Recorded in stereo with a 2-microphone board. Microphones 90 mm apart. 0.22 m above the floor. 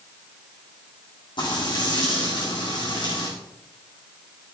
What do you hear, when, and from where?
1.4 s frying: 60° left (ahead or behind), 8.5 m